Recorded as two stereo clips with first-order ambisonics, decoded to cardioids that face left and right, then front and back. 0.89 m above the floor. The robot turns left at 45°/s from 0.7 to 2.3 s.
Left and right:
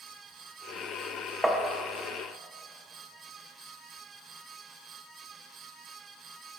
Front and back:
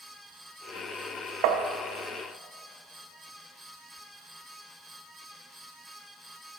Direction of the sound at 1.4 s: 175° right.